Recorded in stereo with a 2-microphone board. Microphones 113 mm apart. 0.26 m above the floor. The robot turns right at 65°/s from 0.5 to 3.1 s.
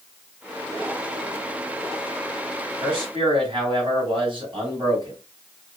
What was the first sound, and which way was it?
A man speaking, 40° right (ahead or behind).